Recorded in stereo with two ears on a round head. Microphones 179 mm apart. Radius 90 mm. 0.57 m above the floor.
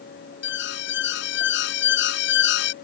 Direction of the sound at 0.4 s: 60° left (ahead or behind).